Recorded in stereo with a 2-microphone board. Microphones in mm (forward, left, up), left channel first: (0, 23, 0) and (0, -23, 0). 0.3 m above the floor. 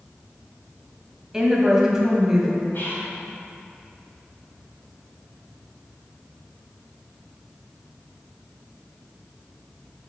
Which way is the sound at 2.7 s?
50° left (ahead or behind).